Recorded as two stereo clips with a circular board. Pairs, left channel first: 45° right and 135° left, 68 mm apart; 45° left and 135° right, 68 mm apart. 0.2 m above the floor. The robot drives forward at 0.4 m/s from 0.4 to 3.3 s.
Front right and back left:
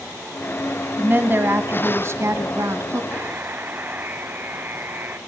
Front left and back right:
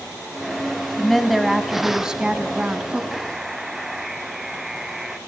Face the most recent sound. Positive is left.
turn(degrees=145)